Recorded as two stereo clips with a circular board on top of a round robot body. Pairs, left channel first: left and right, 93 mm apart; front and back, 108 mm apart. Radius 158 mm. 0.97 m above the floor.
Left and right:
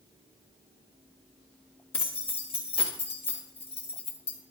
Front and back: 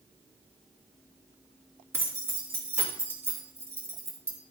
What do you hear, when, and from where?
1.9 s keys jangling: 110° left, 1.4 m